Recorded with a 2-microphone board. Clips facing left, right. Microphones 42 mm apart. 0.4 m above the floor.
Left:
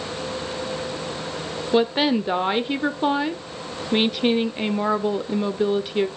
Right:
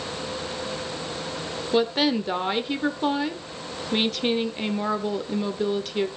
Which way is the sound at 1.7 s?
15° left (ahead or behind).